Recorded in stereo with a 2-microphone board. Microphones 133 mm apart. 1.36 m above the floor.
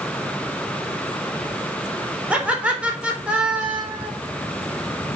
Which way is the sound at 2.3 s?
10° right (ahead or behind).